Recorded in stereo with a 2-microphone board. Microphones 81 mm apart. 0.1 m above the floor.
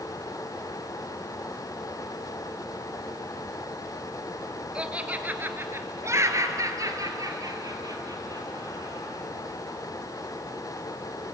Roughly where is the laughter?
Centre.